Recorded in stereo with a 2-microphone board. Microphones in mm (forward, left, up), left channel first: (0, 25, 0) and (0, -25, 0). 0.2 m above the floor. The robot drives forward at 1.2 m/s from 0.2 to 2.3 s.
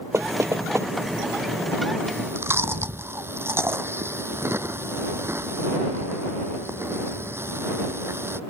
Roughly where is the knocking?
Right.